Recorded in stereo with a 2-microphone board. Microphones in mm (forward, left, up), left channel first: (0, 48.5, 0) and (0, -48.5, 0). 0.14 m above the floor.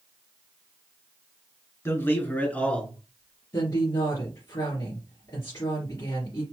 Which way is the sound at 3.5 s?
40° left (ahead or behind).